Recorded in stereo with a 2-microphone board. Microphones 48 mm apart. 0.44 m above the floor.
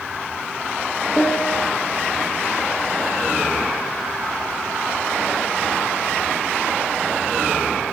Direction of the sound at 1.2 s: 55° left (ahead or behind).